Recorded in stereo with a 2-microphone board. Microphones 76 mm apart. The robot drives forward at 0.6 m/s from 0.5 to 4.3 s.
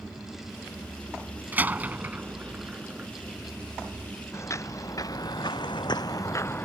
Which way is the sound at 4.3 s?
35° left (ahead or behind).